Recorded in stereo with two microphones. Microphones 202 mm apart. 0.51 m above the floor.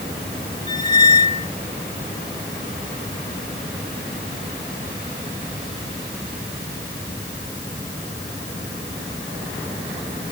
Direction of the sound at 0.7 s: 35° right (ahead or behind).